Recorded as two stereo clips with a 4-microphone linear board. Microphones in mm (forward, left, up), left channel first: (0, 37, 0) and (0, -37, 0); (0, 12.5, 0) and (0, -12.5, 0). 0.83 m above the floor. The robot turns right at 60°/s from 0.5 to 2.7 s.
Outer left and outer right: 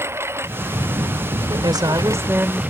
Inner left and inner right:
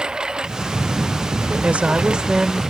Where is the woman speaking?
75° right; by 2.6 s 15° right.